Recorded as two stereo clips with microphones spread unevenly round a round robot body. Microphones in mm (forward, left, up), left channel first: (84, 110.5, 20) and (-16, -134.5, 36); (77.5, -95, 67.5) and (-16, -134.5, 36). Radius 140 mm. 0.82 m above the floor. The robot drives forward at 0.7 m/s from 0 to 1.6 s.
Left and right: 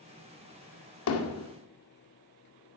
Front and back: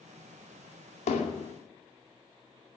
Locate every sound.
1.1 s hammering: 40° left, 2 m; by 1.5 s 45° left, 2.0 m